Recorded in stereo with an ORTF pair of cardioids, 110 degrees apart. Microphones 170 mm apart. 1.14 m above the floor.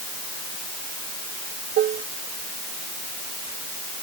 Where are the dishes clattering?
65° right.